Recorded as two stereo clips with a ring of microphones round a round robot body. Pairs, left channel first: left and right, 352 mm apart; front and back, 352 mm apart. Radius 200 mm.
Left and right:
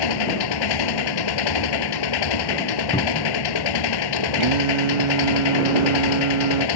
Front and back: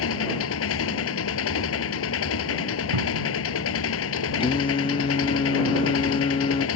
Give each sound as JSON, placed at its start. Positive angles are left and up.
{"t": 0.0, "sound": "an engine running", "azimuth_deg": 60}
{"t": 2.9, "sound": "a cupboard door", "azimuth_deg": 165}
{"t": 4.4, "sound": "singing", "azimuth_deg": -75}